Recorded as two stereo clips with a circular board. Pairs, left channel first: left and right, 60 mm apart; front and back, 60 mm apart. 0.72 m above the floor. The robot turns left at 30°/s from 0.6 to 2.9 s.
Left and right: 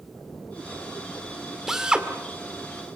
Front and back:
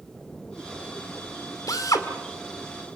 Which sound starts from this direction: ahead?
A drill, at 1.7 s.